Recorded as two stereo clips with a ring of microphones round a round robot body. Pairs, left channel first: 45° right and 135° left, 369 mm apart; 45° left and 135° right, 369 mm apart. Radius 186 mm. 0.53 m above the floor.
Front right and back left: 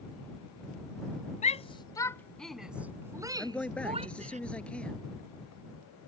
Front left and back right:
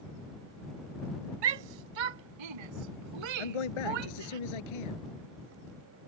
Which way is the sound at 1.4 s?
115° right.